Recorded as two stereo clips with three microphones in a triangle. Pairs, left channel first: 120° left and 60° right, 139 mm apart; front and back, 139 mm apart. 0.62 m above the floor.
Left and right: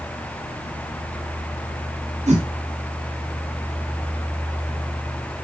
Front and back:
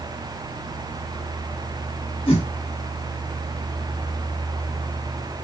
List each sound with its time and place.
2.3 s a whoosh: 40° right, 1.1 m